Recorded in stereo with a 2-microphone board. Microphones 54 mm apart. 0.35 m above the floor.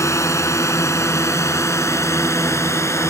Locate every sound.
0.0 s a drone: 70° left (ahead or behind); by 3.1 s 60° left (ahead or behind)